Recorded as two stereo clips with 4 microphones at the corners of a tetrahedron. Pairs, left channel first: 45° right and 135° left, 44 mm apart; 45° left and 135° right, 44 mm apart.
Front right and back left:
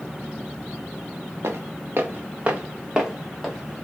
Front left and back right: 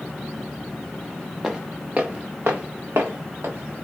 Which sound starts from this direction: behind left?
Footsteps, at 1.4 s.